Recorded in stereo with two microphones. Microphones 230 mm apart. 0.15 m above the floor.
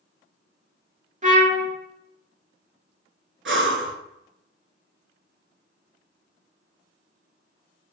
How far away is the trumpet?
About 0.5 m.